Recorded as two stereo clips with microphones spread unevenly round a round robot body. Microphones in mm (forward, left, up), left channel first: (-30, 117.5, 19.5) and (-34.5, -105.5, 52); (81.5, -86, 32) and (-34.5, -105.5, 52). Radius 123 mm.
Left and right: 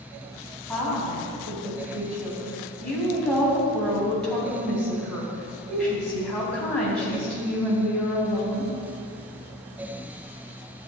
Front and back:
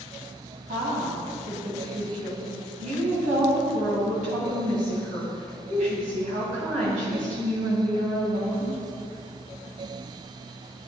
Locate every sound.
0.7 s a woman speaking: 175° left, 4 m